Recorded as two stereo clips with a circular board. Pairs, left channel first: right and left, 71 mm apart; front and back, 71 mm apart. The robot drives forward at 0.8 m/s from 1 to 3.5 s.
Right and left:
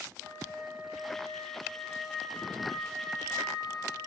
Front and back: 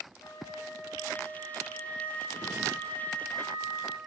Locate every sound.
0.2 s a flute: 5° left, 10 m